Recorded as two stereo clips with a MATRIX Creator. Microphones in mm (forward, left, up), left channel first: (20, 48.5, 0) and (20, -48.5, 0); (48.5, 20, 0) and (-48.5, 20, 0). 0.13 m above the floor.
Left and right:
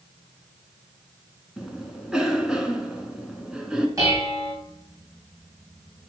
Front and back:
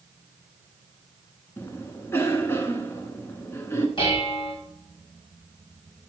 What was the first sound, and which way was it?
A cough, 15° right.